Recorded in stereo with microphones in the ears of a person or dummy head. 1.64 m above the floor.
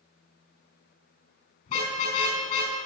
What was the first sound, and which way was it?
A car horn, 40° left (ahead or behind).